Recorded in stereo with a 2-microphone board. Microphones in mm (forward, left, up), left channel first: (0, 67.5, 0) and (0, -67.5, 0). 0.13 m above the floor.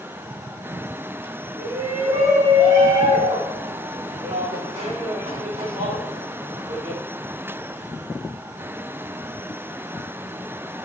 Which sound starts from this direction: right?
A shout, at 1.6 s.